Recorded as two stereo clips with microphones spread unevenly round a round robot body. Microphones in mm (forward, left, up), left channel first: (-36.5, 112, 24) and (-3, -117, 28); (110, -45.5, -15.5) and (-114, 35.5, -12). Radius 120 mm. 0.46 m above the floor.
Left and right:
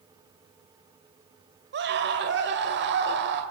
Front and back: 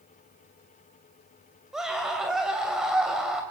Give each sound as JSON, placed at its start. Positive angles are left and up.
{"t": 1.7, "sound": "a scream", "azimuth_deg": -110, "distance_m": 2.5}